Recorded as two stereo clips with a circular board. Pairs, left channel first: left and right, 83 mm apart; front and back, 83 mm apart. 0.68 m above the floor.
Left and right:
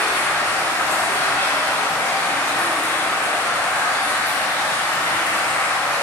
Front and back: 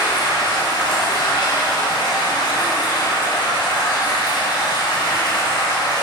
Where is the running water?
20° left, 4 m.